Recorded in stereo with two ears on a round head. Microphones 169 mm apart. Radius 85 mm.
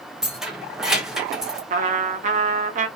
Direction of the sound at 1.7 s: 40° right (ahead or behind).